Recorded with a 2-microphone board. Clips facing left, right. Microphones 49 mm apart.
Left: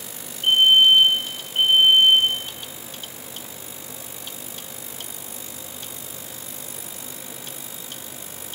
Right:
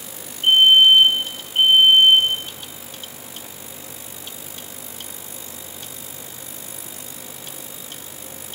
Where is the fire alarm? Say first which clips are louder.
Right 3 dB; 25° right (ahead or behind), 7 m.